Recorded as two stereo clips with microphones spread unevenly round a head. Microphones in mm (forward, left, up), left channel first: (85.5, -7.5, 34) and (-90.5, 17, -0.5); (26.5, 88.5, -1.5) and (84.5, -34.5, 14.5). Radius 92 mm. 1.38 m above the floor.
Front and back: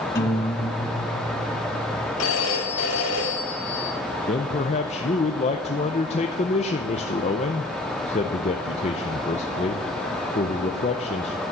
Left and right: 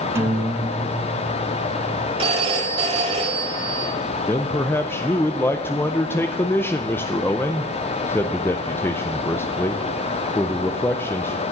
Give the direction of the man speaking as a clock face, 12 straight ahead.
11 o'clock.